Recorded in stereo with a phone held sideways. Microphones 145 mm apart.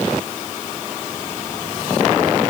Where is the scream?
No scream in this recording.